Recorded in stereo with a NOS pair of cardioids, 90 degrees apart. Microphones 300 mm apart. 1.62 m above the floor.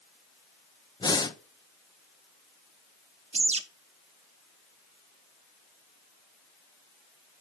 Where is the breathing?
15° left, 0.8 m.